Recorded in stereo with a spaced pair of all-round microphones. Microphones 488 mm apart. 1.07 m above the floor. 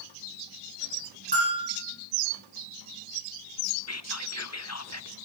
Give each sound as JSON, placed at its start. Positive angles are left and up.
{"t": 1.3, "sound": "a bell", "side_deg": -50, "distance_m": 7.0}
{"t": 3.9, "sound": "whispering", "side_deg": 35, "distance_m": 0.6}